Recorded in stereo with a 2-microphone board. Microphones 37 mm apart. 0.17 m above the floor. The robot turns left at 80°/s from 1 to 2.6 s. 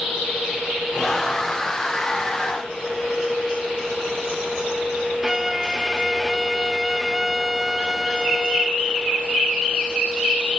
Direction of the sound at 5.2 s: 10° right (ahead or behind).